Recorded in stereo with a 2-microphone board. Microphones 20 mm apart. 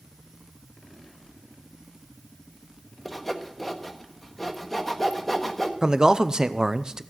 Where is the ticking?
I don't hear ticking.